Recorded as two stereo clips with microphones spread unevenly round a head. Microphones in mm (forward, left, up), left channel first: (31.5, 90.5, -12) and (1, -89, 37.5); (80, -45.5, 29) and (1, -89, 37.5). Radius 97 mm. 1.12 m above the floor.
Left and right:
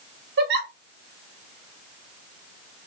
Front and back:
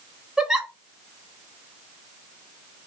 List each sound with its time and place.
0.4 s a giggle: 65° right, 1.0 m